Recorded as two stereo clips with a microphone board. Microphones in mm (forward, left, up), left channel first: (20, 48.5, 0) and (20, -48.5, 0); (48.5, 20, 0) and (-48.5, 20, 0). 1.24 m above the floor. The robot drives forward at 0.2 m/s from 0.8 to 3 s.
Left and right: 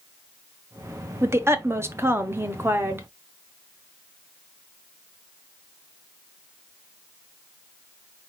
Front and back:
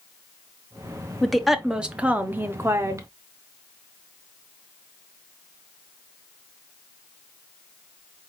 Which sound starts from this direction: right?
A woman speaking, at 1.2 s.